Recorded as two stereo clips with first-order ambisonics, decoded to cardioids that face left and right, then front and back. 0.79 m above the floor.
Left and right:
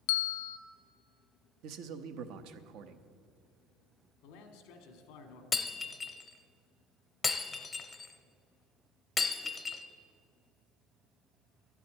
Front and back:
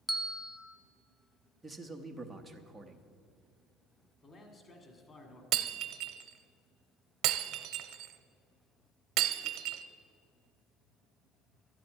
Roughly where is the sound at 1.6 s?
Right.